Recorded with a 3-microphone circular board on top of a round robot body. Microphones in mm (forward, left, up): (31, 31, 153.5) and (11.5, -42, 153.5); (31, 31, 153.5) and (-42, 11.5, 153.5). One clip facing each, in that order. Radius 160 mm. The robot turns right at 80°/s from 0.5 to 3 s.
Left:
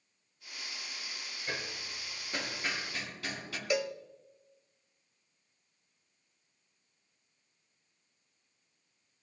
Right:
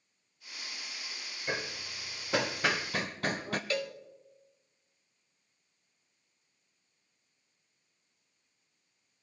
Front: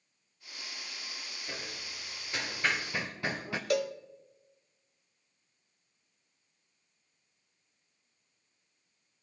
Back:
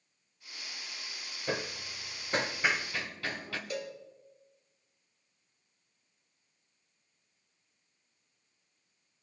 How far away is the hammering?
About 0.8 m.